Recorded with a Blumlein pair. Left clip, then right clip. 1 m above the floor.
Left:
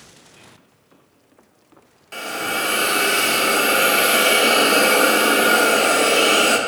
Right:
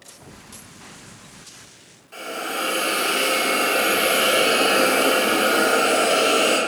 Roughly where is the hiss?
Ahead left.